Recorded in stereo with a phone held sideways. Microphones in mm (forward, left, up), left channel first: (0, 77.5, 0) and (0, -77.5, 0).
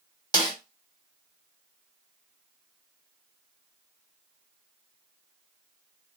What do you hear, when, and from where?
0.3 s a snare drum: 25° left (ahead or behind), 1.0 m